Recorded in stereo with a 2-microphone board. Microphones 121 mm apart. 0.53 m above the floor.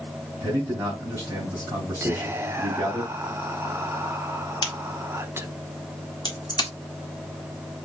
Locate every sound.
0.4 s a man speaking: 20° right (ahead or behind), 2.5 m
2.0 s whispering: 20° right (ahead or behind), 0.7 m
4.6 s a crack: 35° left (ahead or behind), 1.6 m